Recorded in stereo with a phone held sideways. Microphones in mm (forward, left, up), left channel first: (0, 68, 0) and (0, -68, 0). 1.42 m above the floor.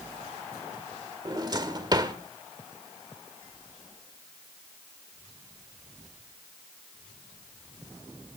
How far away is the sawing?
I don't hear sawing.